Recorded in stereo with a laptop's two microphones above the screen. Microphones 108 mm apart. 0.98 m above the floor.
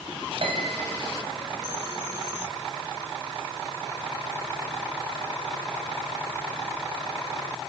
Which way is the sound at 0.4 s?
60° right (ahead or behind).